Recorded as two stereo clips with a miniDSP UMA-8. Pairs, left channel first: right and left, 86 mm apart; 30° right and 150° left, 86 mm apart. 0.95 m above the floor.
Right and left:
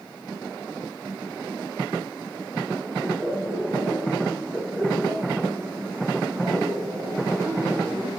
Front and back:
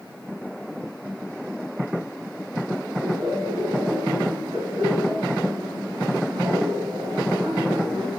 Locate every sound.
3.0 s laughter: 175° left, 8.5 m; by 8.1 s 140° left, 6.5 m